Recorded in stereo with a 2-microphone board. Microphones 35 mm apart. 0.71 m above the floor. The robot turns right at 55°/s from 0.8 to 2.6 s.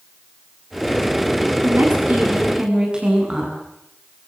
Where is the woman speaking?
80° right, 9 m; by 3.5 s 25° right, 9 m.